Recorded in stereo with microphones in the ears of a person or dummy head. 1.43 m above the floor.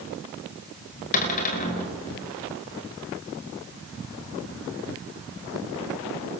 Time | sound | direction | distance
1.1 | a cupboard door | 40° left (ahead or behind) | 5 m